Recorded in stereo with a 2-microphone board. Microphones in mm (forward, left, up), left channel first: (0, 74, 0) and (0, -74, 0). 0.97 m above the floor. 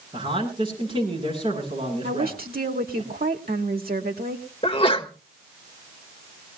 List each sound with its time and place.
0.1 s a man speaking: 35° right (ahead or behind), 10 m
2.0 s a woman speaking: 80° right, 1.8 m
4.6 s a sneeze: 40° left (ahead or behind), 1.4 m